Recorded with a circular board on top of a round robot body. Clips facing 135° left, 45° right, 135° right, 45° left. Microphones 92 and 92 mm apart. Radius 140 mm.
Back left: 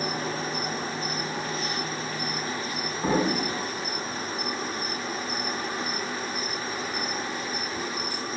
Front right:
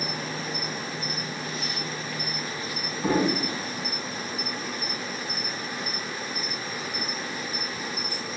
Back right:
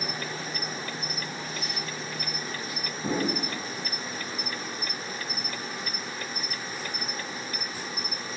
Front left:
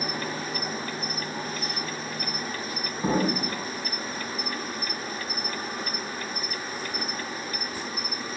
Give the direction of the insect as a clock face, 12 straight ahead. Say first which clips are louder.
Back left 3 dB, front left 3 dB; 9 o'clock.